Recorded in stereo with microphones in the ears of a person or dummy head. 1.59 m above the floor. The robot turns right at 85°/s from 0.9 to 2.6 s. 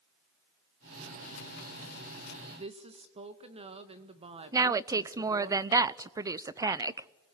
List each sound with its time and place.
2.5 s a woman speaking: 25° right (ahead or behind), 1.7 m; by 5.5 s 30° right (ahead or behind), 1.7 m
4.5 s a woman speaking: 20° right (ahead or behind), 0.5 m